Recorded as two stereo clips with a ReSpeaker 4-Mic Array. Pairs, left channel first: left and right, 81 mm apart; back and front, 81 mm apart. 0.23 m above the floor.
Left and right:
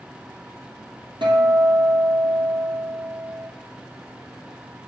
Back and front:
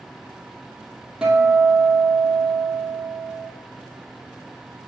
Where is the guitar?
85° right, 1.7 m.